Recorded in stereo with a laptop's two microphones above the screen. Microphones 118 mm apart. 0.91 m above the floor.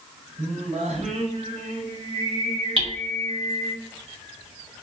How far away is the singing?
About 3.5 m.